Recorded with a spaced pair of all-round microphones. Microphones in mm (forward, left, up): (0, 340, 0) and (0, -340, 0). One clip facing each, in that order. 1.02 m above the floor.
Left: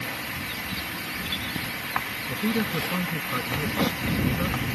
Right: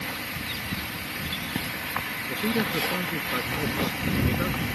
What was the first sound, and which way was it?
A man speaking, 30° left (ahead or behind).